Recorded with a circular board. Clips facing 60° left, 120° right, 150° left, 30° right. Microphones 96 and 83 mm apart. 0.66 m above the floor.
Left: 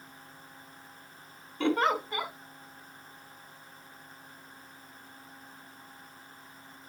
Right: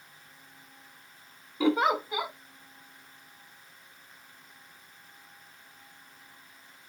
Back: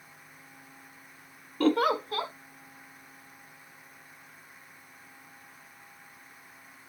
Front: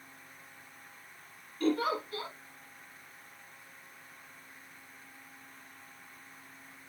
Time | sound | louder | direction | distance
1.6 | a giggle | right 2 dB, back 5 dB | 155° left | 1.0 m